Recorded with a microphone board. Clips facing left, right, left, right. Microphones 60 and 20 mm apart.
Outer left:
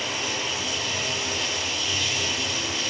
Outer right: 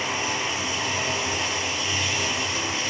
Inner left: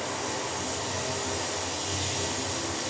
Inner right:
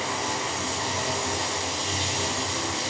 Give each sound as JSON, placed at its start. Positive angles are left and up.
{"t": 0.0, "sound": "running water", "side_deg": -25, "distance_m": 2.5}